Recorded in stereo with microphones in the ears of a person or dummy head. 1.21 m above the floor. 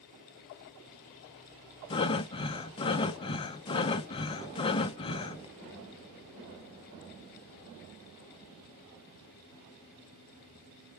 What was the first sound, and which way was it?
Breathing, 30° left (ahead or behind).